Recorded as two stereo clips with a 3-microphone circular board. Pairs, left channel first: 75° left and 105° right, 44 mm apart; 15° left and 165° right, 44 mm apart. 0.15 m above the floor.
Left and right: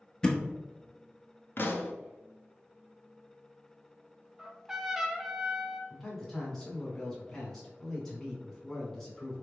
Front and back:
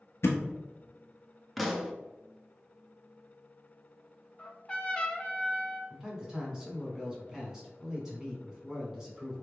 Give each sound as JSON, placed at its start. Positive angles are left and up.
{"t": 0.2, "sound": "a thud", "azimuth_deg": 0, "distance_m": 0.8}
{"t": 1.6, "sound": "a pop", "azimuth_deg": 105, "distance_m": 0.5}
{"t": 4.4, "sound": "a trumpet", "azimuth_deg": -35, "distance_m": 0.6}
{"t": 5.9, "sound": "a man speaking", "azimuth_deg": 145, "distance_m": 1.1}